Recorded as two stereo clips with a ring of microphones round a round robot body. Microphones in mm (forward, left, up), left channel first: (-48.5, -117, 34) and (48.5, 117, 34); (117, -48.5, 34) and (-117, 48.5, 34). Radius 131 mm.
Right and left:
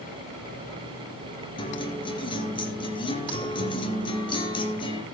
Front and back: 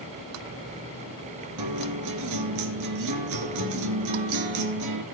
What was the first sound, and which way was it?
A guitar, 175° left.